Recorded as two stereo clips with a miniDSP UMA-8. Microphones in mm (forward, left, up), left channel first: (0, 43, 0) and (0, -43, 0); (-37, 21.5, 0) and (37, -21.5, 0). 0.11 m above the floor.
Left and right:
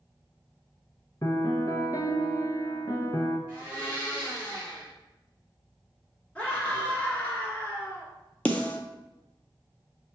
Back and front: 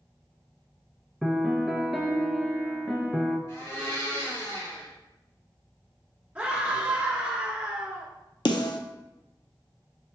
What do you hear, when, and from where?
1.2 s a piano: 60° left, 0.6 m
3.5 s a blender: 145° left, 2 m
6.3 s a scream: 30° left, 1.4 m
8.4 s a snare drum: 160° left, 0.6 m